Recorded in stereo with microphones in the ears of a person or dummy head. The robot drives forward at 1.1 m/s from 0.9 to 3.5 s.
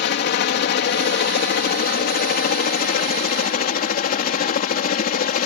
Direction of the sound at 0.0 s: 50° left (ahead or behind).